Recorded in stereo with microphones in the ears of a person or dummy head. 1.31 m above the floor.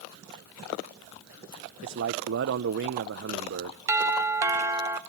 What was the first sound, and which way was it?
A man speaking, 60° right (ahead or behind).